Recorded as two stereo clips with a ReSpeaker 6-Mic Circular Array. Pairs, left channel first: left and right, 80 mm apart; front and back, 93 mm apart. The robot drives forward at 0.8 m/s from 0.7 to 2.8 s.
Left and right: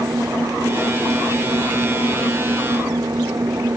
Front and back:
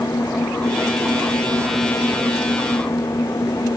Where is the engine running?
45° right; by 3.8 s 50° right.